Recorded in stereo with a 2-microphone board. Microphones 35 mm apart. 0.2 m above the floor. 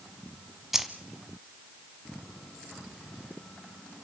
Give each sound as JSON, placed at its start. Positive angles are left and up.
{"t": 0.7, "sound": "keys jangling", "side_deg": -10, "distance_m": 1.2}